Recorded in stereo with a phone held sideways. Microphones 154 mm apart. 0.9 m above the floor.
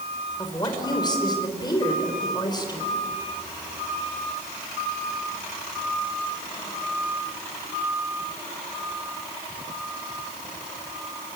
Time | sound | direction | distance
0.4 | a woman speaking | 25° left (ahead or behind) | 4 m